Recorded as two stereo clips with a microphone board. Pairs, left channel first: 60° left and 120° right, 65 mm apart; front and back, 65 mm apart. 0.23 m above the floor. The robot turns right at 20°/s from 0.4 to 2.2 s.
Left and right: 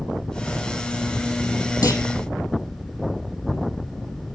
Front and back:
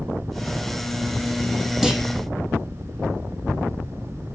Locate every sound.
1.8 s a clunk: 95° left, 2.5 m; by 2.1 s 100° left, 2.5 m